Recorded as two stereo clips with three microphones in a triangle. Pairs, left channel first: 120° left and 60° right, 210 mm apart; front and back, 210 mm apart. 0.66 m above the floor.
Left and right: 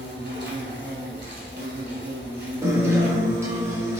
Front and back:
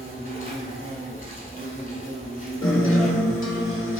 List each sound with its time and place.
0.0 s an insect: 40° right, 0.9 m
2.6 s a guitar: 15° left, 0.7 m